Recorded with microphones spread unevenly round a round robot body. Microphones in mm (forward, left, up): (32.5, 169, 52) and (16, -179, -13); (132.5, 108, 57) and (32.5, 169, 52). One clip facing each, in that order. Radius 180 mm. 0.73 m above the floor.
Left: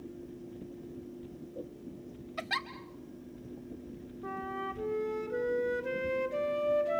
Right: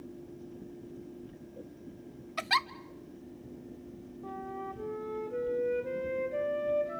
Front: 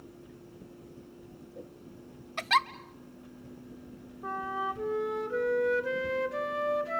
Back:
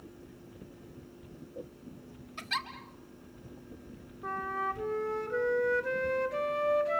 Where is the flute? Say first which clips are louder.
Left 1 dB, front 1 dB; 55° left, 3.5 m.